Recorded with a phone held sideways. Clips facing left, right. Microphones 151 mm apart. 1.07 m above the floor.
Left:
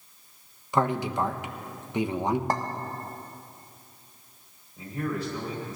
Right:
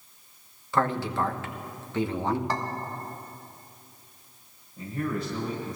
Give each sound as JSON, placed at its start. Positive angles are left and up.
{"t": 0.7, "sound": "a man speaking", "side_deg": 15, "distance_m": 1.0}
{"t": 2.5, "sound": "a clink", "side_deg": 45, "distance_m": 1.1}
{"t": 4.8, "sound": "a man speaking", "side_deg": 5, "distance_m": 4.5}